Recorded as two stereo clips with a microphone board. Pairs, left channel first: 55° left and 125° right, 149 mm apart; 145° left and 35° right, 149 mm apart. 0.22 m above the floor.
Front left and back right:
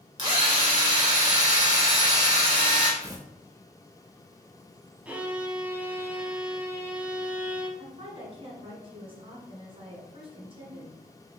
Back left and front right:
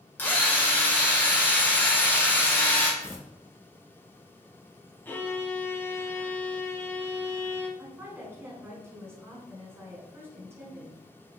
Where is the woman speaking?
100° right, 1.5 m.